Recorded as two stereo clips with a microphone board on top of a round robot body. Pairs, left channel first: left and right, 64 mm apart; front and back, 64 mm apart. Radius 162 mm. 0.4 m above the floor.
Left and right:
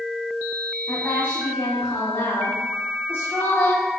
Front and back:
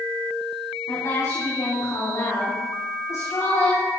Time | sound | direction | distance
0.9 | a woman speaking | 40° left | 5 m